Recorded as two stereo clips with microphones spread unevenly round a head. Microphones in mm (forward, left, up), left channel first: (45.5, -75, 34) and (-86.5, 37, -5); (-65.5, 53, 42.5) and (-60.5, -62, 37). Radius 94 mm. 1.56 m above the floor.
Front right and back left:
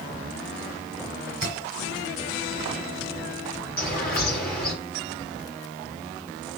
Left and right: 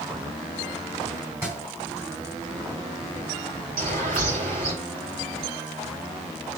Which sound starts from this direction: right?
A bird, at 3.8 s.